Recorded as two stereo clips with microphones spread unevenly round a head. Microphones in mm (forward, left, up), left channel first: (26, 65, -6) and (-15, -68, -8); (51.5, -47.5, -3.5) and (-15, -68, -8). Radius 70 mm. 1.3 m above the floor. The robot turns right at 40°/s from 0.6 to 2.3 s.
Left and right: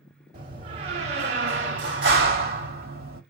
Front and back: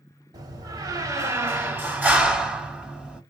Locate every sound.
0.3 s a door slam: 150° right, 2.5 m; by 3.2 s 85° right, 2.5 m